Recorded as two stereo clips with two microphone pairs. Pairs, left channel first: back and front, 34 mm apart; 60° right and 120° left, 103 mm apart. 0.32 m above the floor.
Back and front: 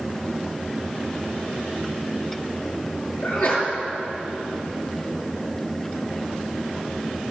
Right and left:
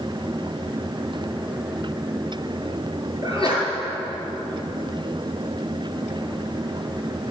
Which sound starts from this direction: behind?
A sneeze, at 3.2 s.